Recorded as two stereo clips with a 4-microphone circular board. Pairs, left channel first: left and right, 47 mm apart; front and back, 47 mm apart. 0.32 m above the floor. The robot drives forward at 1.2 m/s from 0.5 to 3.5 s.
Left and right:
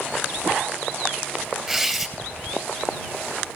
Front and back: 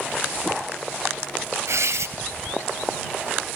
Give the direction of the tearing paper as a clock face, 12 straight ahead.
6 o'clock.